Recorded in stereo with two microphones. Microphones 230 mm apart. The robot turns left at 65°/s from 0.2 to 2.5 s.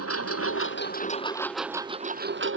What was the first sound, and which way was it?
A lawn mower, 90° left.